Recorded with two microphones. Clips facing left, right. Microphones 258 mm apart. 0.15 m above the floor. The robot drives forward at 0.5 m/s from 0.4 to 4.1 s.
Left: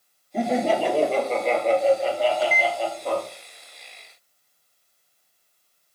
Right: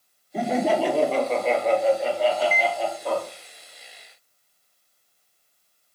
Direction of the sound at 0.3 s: 5° right (ahead or behind).